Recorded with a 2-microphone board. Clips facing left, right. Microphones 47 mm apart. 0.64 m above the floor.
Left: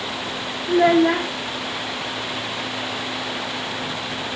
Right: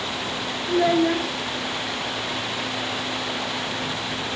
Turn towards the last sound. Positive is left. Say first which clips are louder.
# left 4 dB
turn(degrees=40)  # may be behind; listen again after turning